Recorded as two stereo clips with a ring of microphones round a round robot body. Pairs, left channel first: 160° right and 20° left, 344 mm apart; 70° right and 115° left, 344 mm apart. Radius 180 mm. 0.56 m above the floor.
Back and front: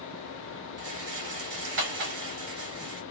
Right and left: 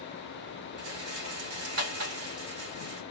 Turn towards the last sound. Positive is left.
turn(degrees=65)